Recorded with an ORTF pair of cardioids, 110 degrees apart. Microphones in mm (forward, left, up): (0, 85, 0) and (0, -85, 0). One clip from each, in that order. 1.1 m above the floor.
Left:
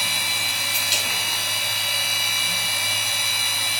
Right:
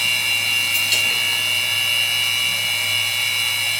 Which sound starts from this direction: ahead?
A machine running, at 0.0 s.